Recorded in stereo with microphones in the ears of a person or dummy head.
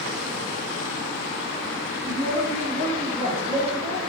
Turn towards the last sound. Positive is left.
turn(degrees=-30)  # may be behind; listen again after turning